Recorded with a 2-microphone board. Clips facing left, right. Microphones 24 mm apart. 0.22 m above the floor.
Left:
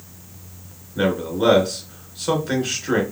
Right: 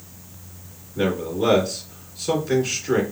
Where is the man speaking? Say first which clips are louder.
Left 2 dB; 60° left (ahead or behind), 2.5 m.